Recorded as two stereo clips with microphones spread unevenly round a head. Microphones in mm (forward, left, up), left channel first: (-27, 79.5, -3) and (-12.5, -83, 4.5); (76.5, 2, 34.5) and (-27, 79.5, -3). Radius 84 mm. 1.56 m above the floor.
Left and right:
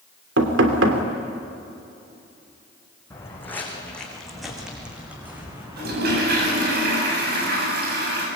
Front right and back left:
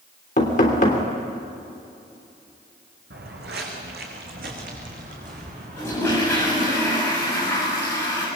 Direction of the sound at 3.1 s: 170° left.